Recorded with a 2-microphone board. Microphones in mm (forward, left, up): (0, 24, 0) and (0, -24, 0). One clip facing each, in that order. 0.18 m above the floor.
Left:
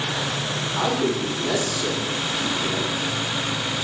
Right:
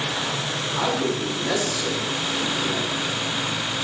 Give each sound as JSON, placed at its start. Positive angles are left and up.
{"t": 0.8, "sound": "a man speaking", "side_deg": -20, "distance_m": 3.5}